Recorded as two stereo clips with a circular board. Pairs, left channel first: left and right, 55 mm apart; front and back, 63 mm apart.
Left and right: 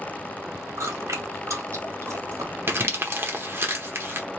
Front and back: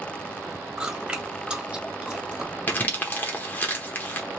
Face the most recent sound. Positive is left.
turn(degrees=-55)